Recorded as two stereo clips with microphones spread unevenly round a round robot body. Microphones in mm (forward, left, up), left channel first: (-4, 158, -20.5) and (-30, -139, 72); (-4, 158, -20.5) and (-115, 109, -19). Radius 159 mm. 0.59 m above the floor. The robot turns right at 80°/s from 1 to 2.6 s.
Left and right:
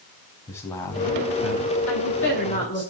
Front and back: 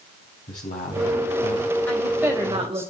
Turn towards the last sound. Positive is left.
turn(degrees=150)